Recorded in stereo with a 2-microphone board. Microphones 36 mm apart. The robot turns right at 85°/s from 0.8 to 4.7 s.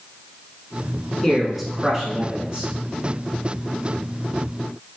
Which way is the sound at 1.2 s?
10° left (ahead or behind).